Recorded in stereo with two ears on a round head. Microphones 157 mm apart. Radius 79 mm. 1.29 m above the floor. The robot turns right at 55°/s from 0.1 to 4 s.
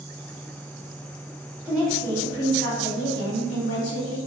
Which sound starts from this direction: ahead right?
A woman speaking, at 1.6 s.